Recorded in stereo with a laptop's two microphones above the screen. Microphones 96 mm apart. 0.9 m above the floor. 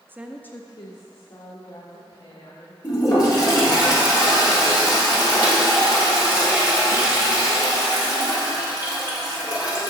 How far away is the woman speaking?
About 0.5 m.